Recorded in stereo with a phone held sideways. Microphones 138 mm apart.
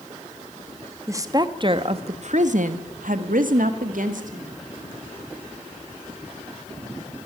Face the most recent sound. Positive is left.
turn(degrees=-70)  # may be behind; listen again after turning